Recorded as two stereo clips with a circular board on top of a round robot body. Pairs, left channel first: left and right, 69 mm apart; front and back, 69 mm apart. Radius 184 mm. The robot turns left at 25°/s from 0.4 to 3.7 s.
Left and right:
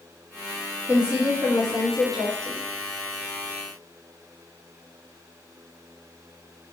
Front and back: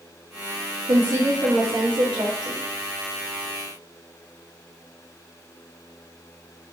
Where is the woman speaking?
150° right, 2 m; by 2.6 s 165° left, 2 m.